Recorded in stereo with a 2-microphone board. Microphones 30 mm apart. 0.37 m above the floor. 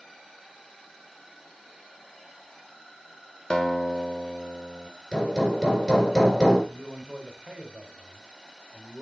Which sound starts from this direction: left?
A guitar, at 3.5 s.